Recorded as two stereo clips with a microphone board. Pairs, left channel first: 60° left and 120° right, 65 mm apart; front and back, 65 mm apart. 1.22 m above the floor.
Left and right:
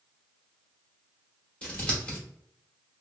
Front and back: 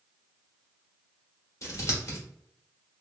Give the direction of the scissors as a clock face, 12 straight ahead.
12 o'clock.